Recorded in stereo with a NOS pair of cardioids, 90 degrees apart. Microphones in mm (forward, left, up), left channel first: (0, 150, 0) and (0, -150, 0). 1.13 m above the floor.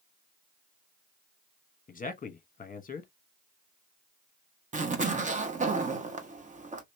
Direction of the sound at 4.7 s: 25° right.